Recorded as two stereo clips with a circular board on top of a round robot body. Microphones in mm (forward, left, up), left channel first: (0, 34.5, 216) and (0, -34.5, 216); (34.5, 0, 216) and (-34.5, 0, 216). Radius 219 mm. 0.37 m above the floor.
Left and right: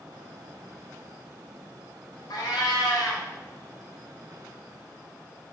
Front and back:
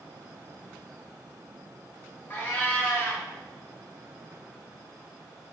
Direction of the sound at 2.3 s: 65° left.